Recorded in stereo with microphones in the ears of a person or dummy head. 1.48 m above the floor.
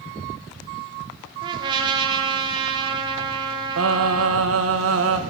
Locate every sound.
1.4 s a trumpet: 30° right (ahead or behind), 1.8 m
3.8 s singing: 80° right, 1.5 m